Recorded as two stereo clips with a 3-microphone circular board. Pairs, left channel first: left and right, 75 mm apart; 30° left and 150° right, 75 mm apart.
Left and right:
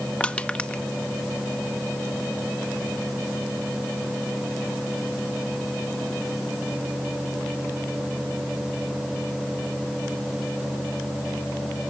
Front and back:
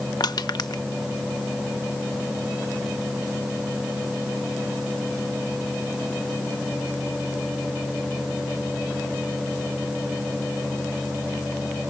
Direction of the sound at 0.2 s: 20° left.